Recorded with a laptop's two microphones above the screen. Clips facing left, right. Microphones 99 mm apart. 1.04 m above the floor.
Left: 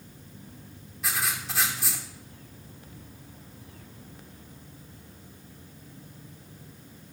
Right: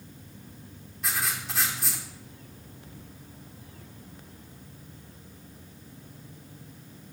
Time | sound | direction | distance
1.0 | writing | centre (ahead or behind) | 1.8 m